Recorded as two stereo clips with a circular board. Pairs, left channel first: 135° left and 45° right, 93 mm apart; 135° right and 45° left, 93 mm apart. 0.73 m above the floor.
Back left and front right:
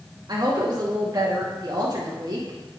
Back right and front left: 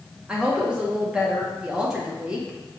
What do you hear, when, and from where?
0.3 s a woman speaking: 30° right, 1.0 m